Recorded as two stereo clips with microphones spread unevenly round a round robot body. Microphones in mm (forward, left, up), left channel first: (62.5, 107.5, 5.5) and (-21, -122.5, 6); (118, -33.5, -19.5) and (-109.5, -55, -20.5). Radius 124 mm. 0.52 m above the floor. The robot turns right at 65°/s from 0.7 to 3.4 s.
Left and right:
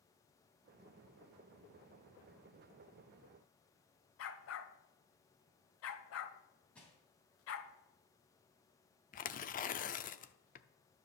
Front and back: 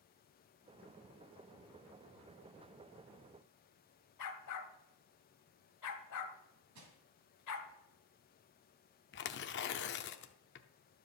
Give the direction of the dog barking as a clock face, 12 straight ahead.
11 o'clock.